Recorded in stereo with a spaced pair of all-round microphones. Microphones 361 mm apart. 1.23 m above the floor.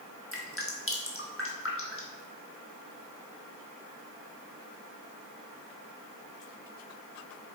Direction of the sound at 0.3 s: 35° left (ahead or behind).